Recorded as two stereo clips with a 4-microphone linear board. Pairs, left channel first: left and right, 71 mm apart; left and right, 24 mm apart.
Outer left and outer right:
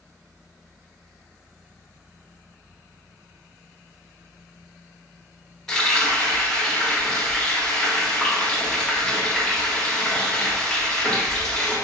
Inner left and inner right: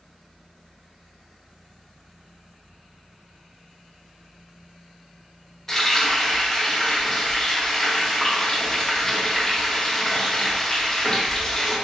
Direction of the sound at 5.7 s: 10° left (ahead or behind).